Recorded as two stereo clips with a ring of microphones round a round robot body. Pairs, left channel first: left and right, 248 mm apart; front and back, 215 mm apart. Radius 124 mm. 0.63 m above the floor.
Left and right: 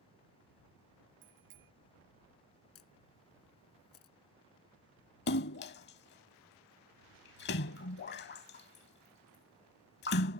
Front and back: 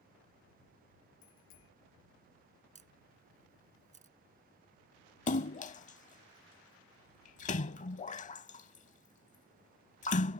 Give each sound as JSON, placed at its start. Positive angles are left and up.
{"t": 1.2, "sound": "a bicycle bell", "azimuth_deg": -45}
{"t": 2.8, "sound": "a camera shutter", "azimuth_deg": 125}
{"t": 5.3, "sound": "a splash", "azimuth_deg": 50}